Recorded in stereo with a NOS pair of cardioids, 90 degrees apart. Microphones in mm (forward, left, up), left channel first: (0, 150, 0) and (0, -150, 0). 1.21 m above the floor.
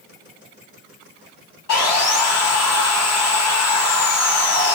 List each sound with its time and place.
1.7 s sawing: 65° left, 1.0 m